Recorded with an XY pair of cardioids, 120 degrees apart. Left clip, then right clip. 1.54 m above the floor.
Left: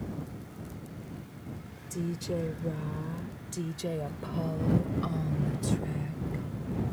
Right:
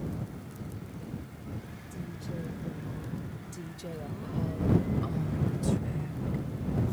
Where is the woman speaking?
70° left; by 6.4 s 20° left.